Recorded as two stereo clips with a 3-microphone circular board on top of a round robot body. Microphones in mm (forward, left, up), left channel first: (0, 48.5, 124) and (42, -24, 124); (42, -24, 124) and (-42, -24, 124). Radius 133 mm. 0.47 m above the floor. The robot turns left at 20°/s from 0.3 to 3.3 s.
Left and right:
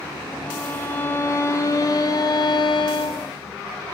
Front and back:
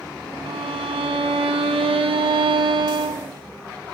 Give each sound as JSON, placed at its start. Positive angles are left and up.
{"t": 0.5, "sound": "a violin", "azimuth_deg": -160, "distance_m": 1.3}